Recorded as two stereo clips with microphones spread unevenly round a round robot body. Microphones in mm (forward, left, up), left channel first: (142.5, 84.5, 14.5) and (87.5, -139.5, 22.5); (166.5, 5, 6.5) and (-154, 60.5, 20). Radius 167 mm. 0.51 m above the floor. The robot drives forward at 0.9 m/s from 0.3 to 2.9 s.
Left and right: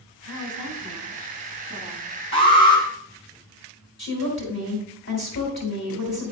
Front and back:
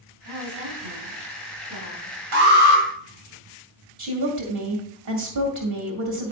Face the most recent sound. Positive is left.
turn(degrees=135)